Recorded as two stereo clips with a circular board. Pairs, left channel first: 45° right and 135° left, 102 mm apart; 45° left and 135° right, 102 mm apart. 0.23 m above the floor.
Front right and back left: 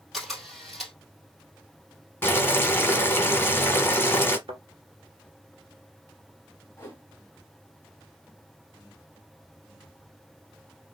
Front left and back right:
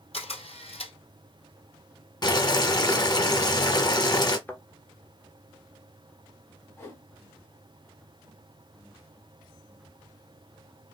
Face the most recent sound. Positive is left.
turn(degrees=0)